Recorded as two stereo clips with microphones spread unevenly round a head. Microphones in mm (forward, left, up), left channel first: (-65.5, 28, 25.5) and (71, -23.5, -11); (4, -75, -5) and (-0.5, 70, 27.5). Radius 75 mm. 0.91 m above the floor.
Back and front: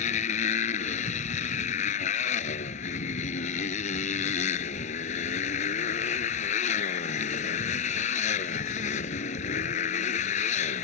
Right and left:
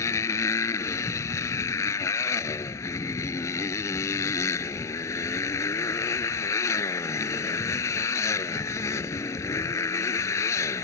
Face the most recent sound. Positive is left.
turn(degrees=-160)